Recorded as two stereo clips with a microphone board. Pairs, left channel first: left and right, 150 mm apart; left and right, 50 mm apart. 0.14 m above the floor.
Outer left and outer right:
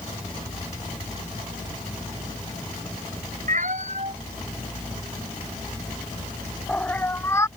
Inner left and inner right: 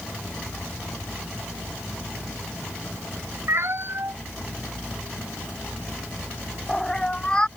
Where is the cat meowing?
60° right (ahead or behind); by 7.5 s 20° left (ahead or behind).